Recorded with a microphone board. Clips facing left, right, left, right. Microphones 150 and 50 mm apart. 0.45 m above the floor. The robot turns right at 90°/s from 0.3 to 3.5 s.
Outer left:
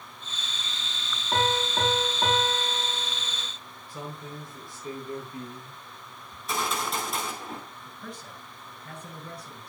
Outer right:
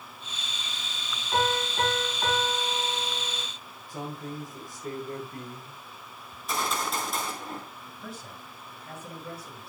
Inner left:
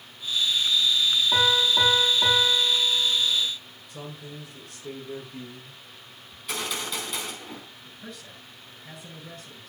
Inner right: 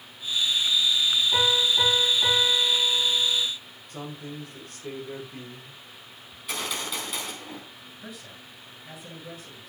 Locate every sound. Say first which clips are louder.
1.3 s a piano: even, inner left 3 dB; 45° left, 7 m; by 3.4 s 125° right, 7 m
3.9 s a man speaking: outer right 3 dB, inner right 3 dB; 45° right (ahead or behind), 8.5 m
6.3 s a gunshot: even, even; centre (ahead or behind), 4.5 m
7.8 s a man speaking: even, even; 5° right (ahead or behind), 8 m